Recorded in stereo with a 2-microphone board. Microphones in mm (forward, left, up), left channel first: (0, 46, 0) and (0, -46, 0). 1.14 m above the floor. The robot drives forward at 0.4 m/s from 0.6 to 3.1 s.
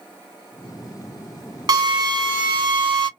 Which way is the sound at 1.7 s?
50° right (ahead or behind).